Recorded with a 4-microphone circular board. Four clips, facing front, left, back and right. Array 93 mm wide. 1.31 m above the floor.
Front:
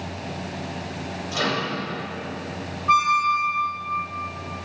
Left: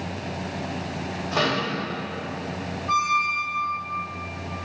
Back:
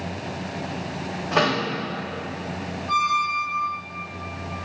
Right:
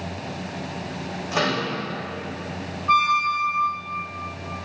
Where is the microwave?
175° right, 2.5 m.